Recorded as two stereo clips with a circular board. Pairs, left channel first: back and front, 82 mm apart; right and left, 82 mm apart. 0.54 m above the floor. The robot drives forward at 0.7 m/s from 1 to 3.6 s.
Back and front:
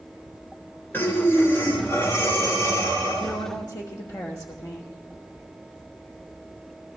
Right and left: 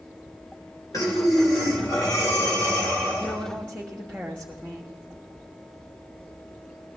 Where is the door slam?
No door slam in this recording.